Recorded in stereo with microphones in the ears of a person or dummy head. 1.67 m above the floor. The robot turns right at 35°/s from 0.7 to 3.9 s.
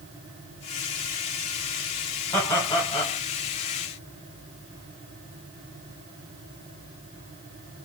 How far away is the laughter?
About 1.0 m.